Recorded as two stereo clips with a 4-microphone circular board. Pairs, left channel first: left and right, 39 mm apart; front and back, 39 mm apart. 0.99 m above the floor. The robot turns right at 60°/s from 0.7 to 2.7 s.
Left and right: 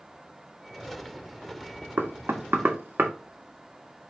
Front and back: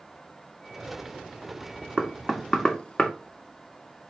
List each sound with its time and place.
2.0 s knocking: 110° right, 0.8 m; by 3.1 s 65° right, 0.8 m